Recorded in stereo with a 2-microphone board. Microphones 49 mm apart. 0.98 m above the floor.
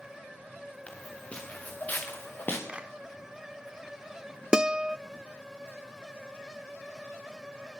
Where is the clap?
25° right (ahead or behind), 3 m.